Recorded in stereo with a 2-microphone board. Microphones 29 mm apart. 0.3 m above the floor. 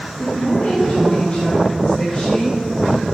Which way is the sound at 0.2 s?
60° left (ahead or behind).